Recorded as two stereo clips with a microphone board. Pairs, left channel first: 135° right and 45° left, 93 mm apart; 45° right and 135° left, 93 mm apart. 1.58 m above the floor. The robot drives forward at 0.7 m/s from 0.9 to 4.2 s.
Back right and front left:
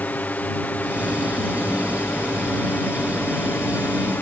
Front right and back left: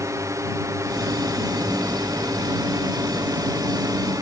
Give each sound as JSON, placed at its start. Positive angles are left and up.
{"t": 0.0, "sound": "a drone", "azimuth_deg": 160}